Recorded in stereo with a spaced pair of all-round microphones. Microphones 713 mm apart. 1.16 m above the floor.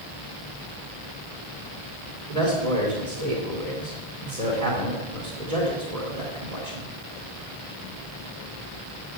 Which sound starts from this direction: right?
A man speaking, at 2.3 s.